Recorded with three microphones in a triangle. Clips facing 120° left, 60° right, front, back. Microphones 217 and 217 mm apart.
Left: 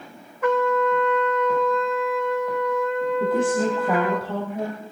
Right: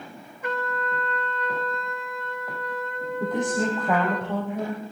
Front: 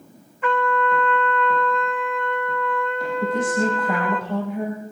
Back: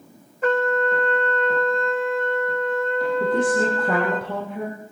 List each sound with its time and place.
0.4 s a trumpet: 130° left, 1.6 m
3.2 s a woman speaking: 155° right, 6 m